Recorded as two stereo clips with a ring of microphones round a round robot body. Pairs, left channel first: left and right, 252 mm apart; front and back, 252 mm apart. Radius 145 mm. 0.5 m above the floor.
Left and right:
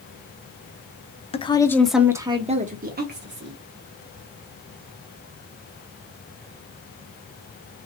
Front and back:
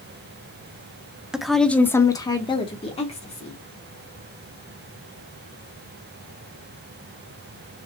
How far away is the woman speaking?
About 0.8 m.